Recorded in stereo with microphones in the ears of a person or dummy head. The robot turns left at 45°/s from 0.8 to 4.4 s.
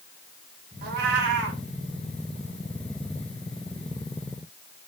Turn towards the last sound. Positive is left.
turn(degrees=130)